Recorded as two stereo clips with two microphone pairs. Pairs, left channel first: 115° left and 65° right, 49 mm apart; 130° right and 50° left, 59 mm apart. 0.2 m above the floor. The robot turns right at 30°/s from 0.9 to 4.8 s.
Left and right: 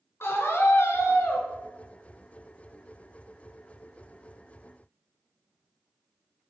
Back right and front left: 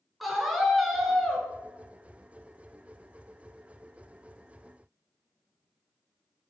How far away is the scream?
About 2.5 m.